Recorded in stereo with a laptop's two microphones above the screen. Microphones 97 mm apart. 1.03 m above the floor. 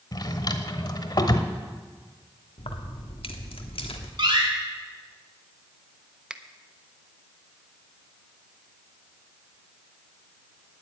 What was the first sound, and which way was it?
A drawer, 45° left (ahead or behind).